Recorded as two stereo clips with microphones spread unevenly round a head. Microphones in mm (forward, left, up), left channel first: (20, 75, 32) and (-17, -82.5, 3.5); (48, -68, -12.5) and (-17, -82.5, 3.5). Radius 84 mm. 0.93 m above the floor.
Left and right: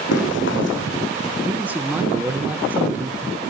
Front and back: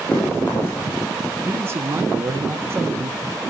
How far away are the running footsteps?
About 3 m.